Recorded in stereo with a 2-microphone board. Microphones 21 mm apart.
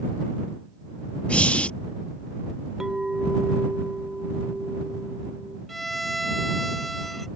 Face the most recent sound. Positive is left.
turn(degrees=5)  # may be behind; listen again after turning